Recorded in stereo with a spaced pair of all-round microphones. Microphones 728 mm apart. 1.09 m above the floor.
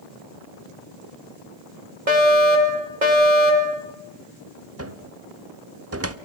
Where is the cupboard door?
20° right (ahead or behind), 1.0 m.